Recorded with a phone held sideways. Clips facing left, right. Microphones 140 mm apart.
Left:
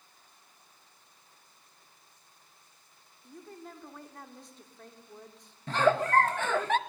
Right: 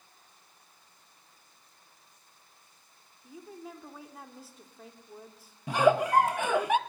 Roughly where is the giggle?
Centre.